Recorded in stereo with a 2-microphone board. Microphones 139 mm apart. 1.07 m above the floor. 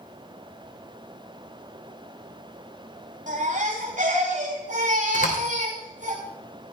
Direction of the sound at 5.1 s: 75° left (ahead or behind).